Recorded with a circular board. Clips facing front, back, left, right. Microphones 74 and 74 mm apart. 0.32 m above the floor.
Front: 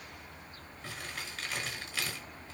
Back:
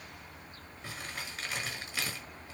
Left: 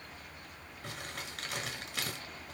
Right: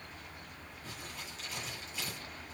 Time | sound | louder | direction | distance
0.8 | crumpling | even, left 4 dB | 105° left | 5.5 m